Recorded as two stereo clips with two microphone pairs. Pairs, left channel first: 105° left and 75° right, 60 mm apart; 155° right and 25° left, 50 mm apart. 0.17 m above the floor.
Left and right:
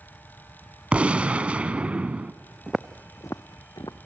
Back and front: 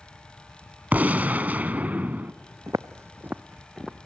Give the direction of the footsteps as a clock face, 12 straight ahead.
12 o'clock.